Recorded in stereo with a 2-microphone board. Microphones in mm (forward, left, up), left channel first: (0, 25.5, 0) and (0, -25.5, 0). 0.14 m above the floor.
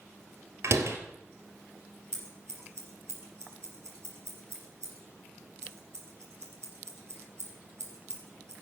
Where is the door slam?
60° right (ahead or behind), 1.8 m.